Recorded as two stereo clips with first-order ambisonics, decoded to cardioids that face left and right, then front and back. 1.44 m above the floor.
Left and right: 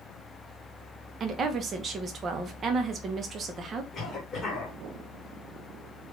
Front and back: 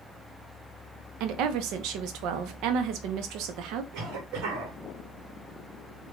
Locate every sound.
1.2 s a woman speaking: 150° right, 0.6 m
3.9 s a cough: 150° left, 1.7 m